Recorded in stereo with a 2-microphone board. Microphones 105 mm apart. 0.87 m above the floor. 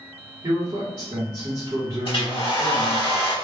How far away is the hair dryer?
About 0.8 m.